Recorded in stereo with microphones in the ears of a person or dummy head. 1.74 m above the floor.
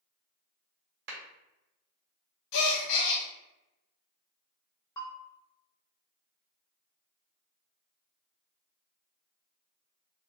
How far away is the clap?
About 1.3 m.